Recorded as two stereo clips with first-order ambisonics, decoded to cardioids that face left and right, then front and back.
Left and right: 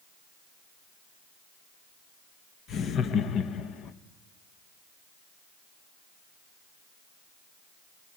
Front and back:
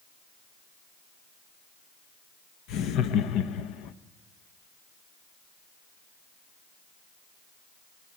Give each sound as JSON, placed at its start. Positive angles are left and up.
{"t": 2.7, "sound": "laughter", "azimuth_deg": 40, "distance_m": 0.9}